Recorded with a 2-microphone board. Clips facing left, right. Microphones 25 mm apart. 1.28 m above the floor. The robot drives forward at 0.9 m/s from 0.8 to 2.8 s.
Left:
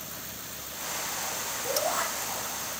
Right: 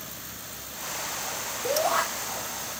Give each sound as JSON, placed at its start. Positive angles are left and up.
{"t": 1.6, "sound": "a shout", "side_deg": -85, "distance_m": 3.5}